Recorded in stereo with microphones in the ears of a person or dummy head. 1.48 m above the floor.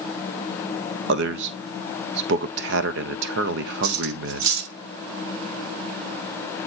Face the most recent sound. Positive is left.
turn(degrees=-65)  # may be behind; listen again after turning